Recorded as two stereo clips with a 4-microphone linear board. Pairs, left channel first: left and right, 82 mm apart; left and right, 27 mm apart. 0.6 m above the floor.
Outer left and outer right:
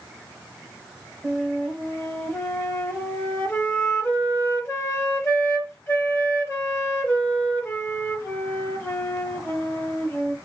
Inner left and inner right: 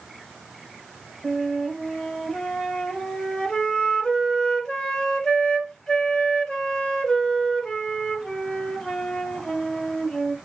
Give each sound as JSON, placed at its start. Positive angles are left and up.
{"t": 1.2, "sound": "a flute", "side_deg": 30, "distance_m": 0.8}